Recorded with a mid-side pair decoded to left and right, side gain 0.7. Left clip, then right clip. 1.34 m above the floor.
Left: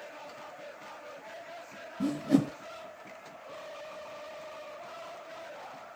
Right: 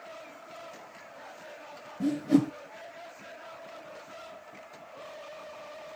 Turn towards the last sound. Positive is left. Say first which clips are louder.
# right 2 dB
turn(degrees=5)